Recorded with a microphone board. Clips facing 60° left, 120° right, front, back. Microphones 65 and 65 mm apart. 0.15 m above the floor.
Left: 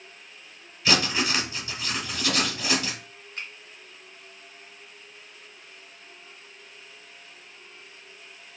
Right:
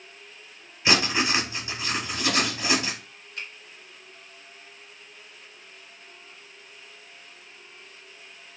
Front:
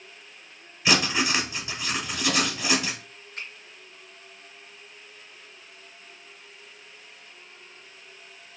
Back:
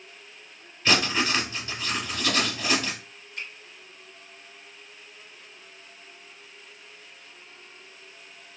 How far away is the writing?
About 0.9 m.